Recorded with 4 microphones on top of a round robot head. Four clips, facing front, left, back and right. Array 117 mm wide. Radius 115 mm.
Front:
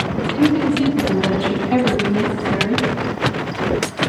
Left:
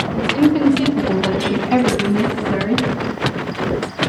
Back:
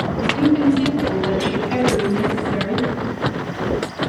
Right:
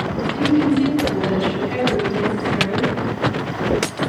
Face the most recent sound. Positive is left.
turn(degrees=75)